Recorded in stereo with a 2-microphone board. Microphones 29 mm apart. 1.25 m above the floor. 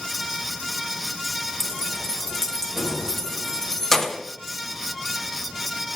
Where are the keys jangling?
10° left (ahead or behind), 1.0 m.